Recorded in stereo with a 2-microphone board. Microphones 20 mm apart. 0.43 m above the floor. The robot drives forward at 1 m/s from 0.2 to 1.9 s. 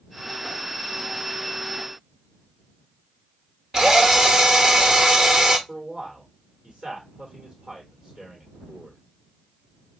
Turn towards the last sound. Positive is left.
turn(degrees=-40)  # may be behind; listen again after turning